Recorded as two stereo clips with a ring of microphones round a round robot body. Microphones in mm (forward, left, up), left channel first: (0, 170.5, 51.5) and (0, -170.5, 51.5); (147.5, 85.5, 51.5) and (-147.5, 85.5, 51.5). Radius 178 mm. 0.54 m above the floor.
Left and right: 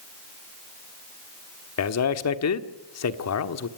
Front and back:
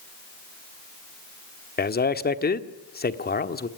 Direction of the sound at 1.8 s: 55° left.